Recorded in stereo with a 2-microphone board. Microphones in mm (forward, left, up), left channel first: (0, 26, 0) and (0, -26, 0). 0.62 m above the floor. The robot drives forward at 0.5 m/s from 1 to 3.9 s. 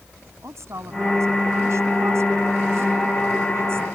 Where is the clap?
I don't hear a clap.